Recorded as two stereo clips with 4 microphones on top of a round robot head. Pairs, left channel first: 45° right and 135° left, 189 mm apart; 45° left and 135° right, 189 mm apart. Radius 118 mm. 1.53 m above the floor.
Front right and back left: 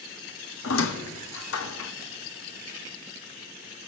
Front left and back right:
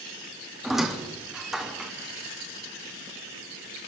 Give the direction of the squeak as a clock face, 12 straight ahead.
2 o'clock.